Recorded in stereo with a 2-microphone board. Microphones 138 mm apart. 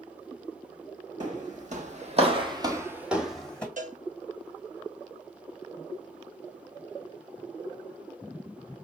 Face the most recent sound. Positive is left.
turn(degrees=-70)  # may be behind; listen again after turning